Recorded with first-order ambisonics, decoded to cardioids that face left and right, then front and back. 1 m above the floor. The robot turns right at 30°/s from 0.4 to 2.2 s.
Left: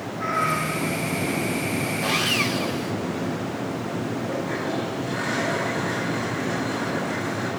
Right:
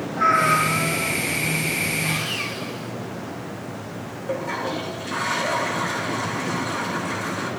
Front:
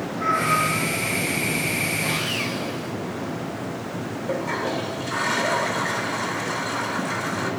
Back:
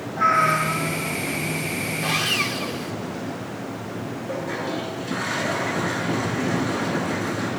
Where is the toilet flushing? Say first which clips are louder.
Right 4 dB, front 3 dB; 25° right, 3 m.